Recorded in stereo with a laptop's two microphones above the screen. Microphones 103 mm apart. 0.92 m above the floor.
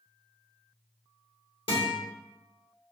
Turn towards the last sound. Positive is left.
turn(degrees=60)  # may be behind; listen again after turning